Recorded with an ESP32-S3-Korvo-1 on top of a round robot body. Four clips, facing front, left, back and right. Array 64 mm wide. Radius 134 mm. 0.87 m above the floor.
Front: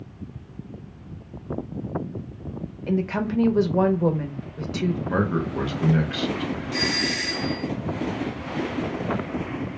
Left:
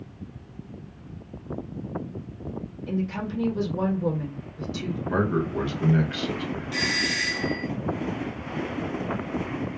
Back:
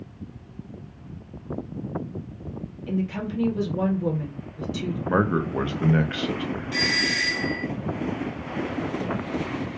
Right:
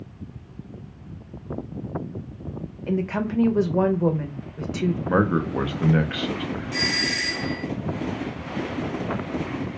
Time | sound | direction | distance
2.9 | a woman speaking | 45° right | 0.7 m
5.1 | a man speaking | 130° right | 0.7 m
6.7 | a doorbell | straight behind | 1.5 m